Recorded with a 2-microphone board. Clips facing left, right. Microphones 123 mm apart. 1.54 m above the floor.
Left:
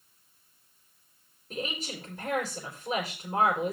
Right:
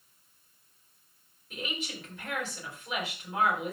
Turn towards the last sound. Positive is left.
turn(degrees=40)  # may be behind; listen again after turning